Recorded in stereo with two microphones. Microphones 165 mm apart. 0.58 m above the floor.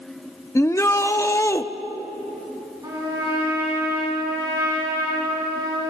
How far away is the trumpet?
About 5.5 m.